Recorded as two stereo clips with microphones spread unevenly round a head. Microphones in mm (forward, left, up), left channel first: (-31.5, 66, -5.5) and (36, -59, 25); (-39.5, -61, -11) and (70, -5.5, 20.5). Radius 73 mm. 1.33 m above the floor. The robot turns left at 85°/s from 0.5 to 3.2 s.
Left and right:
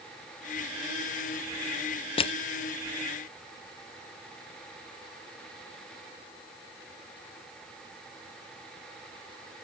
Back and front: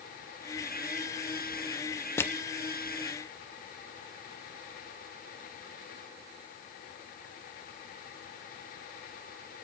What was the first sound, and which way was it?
Crushing, 150° left.